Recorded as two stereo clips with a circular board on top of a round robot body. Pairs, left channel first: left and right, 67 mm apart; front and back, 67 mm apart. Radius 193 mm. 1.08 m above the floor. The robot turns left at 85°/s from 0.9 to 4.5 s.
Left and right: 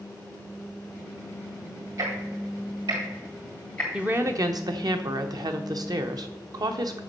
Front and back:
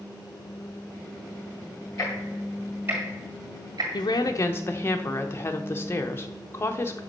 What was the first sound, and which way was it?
Ticking, 35° right.